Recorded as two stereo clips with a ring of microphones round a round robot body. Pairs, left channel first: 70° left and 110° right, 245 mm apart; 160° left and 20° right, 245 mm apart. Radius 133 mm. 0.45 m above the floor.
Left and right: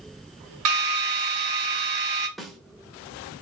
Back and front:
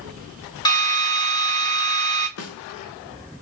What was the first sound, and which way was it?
A drill, 130° right.